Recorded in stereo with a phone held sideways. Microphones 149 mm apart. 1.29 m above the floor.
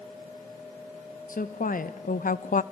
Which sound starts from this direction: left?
A woman speaking, at 1.3 s.